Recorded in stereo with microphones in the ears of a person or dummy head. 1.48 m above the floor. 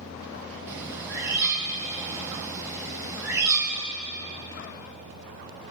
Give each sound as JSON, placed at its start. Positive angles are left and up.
{"t": 0.7, "sound": "a bird", "side_deg": -15, "distance_m": 4.0}